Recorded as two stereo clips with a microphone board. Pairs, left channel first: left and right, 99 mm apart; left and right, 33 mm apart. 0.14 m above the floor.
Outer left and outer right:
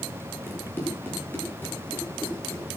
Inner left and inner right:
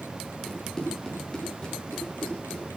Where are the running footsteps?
20° left (ahead or behind), 8.5 m; by 2.7 s 25° left (ahead or behind), 9.5 m.